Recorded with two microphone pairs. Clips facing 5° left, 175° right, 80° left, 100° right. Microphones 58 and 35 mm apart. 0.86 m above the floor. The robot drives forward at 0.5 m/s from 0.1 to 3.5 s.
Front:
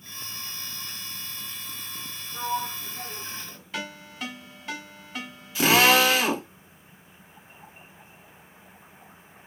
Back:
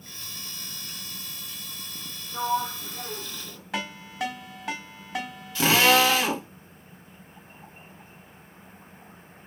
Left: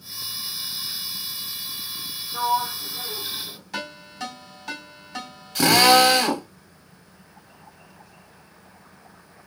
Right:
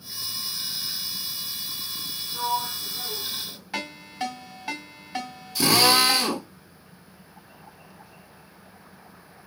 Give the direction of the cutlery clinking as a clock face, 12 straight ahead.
No cutlery clinking in this recording.